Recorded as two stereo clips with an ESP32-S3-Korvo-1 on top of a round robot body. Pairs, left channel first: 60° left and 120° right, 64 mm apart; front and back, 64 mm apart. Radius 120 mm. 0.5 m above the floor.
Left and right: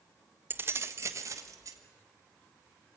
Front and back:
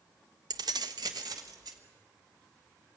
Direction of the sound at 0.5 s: Straight behind.